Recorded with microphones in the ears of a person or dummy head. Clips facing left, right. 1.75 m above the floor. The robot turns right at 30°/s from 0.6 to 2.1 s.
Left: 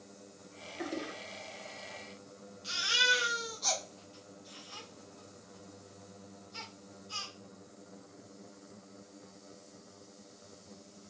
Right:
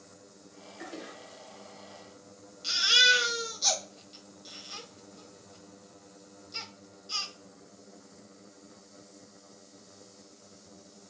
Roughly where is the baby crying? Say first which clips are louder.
Right 4 dB; right.